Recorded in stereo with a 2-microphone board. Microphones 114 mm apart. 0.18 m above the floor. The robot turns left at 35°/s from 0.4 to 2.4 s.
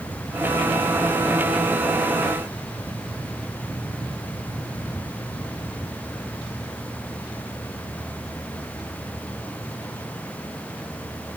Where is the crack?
No crack in this recording.